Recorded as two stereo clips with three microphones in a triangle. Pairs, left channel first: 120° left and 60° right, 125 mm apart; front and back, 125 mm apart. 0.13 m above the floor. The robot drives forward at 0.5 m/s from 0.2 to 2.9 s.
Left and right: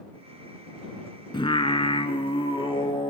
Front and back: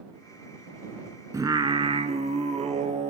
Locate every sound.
1.3 s singing: 130° left, 0.5 m; by 3.1 s 165° left, 1.1 m